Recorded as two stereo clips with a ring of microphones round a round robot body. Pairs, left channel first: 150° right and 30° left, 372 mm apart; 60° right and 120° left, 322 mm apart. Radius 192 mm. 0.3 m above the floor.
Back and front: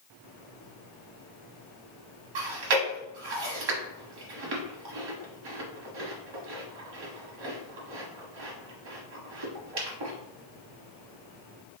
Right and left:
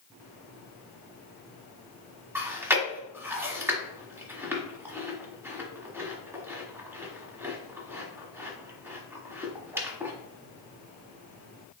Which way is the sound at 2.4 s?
35° left.